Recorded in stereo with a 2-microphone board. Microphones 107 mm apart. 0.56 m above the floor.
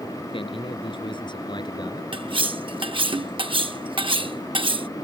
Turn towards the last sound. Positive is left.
turn(degrees=-55)  # may be behind; listen again after turning